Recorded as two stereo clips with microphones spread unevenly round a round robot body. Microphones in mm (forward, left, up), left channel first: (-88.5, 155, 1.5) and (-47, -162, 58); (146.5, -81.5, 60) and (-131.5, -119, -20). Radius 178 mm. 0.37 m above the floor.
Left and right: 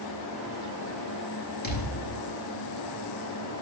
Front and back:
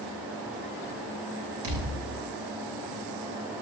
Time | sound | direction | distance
1.6 | a thud | 160° left | 7 m